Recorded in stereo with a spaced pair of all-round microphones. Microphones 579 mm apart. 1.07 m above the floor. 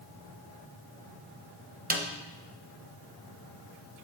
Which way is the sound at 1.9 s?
15° right (ahead or behind).